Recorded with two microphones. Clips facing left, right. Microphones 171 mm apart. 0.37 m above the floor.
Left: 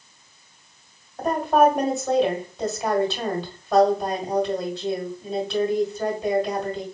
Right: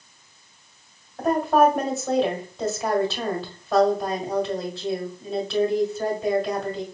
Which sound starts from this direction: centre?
A woman speaking, at 1.2 s.